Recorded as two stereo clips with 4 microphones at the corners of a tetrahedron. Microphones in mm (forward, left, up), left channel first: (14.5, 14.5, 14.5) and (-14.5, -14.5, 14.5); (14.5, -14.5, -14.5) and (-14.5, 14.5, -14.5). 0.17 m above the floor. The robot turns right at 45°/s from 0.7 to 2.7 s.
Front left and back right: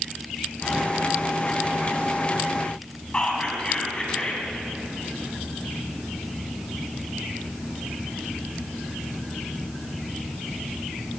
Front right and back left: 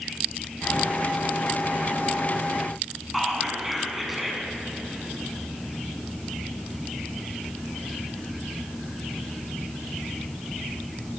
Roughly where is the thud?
No thud in this recording.